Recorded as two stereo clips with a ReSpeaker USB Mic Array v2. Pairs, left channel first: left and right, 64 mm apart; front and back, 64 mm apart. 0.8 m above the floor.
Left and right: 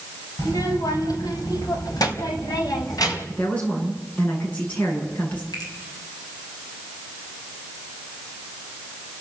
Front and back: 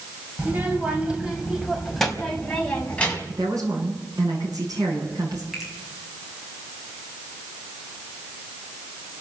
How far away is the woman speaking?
About 8.5 m.